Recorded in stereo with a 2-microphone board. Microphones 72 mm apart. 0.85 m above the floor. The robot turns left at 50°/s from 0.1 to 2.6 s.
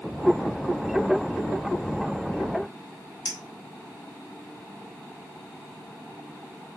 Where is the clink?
75° left (ahead or behind), 0.8 m.